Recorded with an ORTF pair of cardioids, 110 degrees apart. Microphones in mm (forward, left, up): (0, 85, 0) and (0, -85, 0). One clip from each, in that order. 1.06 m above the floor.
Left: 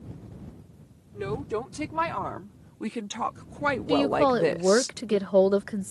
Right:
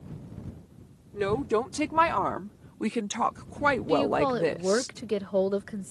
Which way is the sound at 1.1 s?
30° right.